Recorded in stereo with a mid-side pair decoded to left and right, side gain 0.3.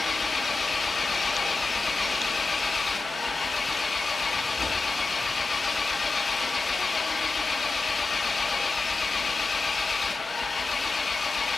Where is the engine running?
45° left, 2.5 m.